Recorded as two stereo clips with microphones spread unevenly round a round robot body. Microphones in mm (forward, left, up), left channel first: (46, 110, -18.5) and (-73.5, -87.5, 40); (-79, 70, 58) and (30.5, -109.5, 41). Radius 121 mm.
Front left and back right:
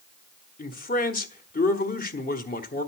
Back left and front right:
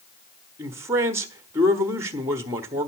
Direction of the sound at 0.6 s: 15° left.